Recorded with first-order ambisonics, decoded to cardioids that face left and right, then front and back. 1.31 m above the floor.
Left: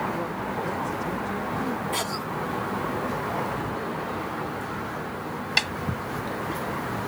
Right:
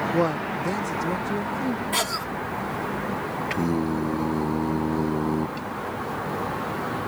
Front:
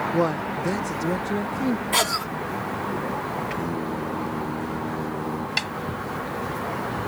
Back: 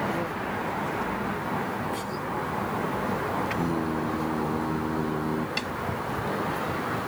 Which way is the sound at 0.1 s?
50° right.